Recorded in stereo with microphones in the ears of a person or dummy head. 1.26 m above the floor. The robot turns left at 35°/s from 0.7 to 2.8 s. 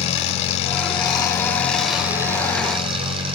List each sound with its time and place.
0.0 s an engine running: 40° left, 8 m; by 3.4 s 30° right, 8 m